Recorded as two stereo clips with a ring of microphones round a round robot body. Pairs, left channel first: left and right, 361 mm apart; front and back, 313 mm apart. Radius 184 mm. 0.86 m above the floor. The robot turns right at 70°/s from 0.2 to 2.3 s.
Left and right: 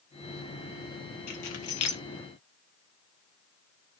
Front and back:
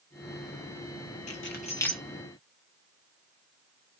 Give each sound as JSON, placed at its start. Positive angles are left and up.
{"t": 1.3, "sound": "keys jangling", "azimuth_deg": 45, "distance_m": 1.1}